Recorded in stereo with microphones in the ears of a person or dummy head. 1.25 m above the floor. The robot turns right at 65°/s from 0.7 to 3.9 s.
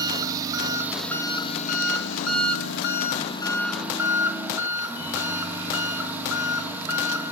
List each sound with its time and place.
0.0 s an engine running: 20° right, 1.4 m; by 7.3 s 170° right, 1.4 m